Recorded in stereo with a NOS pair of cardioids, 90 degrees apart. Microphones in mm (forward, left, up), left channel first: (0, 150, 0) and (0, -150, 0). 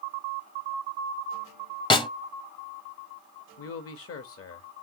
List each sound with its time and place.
1.9 s a snare drum: 15° left, 0.8 m
3.6 s a man speaking: 50° left, 1.2 m